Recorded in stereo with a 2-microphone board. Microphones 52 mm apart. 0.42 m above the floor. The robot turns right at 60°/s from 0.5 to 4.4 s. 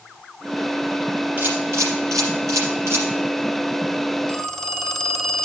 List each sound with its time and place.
1.4 s a camera shutter: 30° right (ahead or behind), 5 m; by 3.0 s 50° right (ahead or behind), 5 m
4.3 s a phone ringing: 15° left (ahead or behind), 0.9 m; by 5.5 s 10° left (ahead or behind), 0.9 m